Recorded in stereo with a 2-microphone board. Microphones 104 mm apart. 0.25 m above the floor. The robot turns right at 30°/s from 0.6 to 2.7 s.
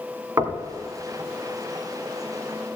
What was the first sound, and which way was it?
Knocking, 30° right (ahead or behind).